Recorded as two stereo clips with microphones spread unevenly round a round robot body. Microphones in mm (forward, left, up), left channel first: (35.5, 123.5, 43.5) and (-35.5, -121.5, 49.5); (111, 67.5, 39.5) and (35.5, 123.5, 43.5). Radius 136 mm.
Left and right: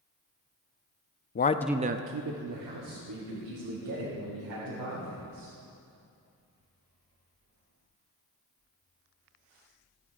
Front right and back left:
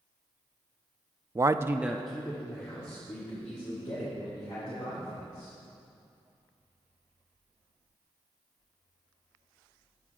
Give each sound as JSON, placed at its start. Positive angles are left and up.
{"t": 1.4, "sound": "a man speaking", "azimuth_deg": 95, "distance_m": 0.6}